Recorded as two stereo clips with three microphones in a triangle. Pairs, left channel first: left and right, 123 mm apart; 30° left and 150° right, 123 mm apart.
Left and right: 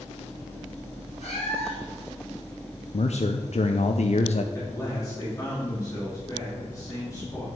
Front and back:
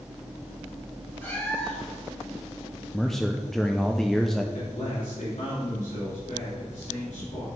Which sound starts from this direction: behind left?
A man speaking, at 2.9 s.